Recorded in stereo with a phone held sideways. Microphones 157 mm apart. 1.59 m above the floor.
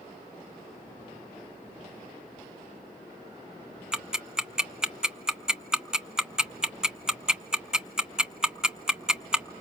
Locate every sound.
3.9 s ticking: 5° right (ahead or behind), 0.7 m